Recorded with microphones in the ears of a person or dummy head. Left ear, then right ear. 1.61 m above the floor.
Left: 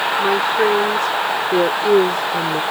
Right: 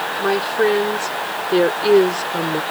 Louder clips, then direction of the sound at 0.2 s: Even; 10° right (ahead or behind).